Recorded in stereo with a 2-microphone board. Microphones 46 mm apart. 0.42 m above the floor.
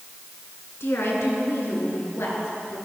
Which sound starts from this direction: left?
A woman speaking, at 0.8 s.